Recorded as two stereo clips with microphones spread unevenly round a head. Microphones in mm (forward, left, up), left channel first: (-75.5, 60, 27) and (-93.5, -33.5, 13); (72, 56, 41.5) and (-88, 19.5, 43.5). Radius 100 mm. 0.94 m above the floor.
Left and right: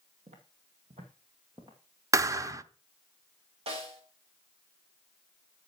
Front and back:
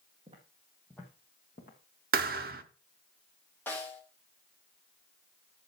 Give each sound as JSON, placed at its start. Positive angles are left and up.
{"t": 0.3, "sound": "footsteps", "azimuth_deg": -105, "distance_m": 2.0}
{"t": 2.1, "sound": "a thud", "azimuth_deg": -155, "distance_m": 0.7}
{"t": 3.7, "sound": "a snare drum", "azimuth_deg": -65, "distance_m": 1.8}